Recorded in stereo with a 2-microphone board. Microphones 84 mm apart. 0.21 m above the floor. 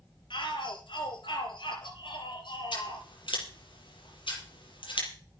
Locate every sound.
0.3 s a shout: 70° left (ahead or behind), 4.5 m
2.7 s scissors: 75° left (ahead or behind), 6 m